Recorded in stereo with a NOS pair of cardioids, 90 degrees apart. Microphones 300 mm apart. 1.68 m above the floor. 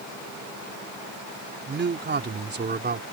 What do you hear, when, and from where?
1.7 s a man speaking: 35° right